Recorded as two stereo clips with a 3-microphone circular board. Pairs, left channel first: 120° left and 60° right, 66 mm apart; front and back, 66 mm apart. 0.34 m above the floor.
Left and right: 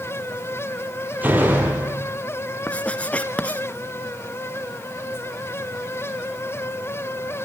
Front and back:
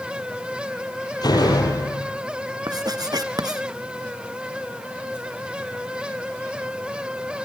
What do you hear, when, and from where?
1.2 s a door slam: 5° left, 6 m
2.7 s writing: 170° right, 1.6 m